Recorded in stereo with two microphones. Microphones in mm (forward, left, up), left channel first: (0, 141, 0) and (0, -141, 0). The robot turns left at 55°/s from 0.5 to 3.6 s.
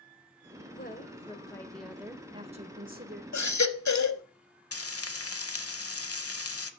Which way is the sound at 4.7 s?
55° left (ahead or behind).